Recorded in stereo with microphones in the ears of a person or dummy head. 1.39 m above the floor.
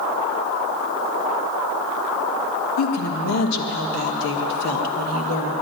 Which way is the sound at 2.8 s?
75° left (ahead or behind).